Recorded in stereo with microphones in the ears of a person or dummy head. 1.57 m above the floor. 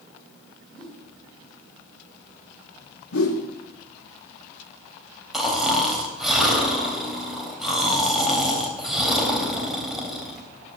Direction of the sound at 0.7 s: 10° left (ahead or behind).